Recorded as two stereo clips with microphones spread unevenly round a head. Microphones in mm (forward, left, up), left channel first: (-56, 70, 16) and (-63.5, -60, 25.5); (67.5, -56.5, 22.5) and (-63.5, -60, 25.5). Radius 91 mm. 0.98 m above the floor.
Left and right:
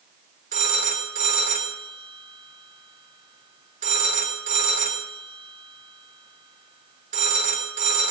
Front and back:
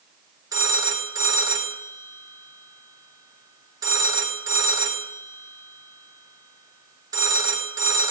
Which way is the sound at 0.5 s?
115° right.